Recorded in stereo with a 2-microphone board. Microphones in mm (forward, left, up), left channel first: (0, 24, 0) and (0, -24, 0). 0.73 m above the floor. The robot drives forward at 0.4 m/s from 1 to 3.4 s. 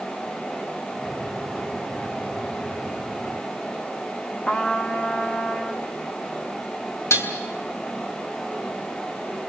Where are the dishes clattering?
75° left (ahead or behind), 3 m.